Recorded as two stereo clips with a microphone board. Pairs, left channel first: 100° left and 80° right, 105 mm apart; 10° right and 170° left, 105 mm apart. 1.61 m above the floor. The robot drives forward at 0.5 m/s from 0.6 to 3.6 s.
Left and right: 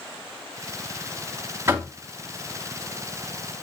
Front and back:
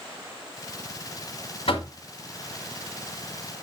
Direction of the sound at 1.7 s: 20° right.